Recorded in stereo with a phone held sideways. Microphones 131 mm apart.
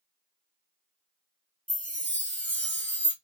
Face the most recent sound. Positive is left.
turn(degrees=10)  # may be behind; listen again after turning